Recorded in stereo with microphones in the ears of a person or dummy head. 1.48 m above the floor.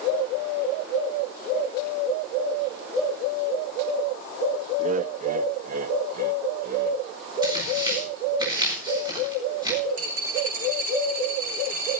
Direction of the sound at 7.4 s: 25° right (ahead or behind).